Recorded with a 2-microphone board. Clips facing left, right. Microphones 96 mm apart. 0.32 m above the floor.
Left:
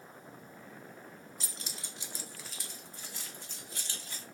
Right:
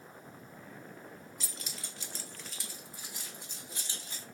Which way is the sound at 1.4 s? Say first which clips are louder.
Even; 35° left (ahead or behind).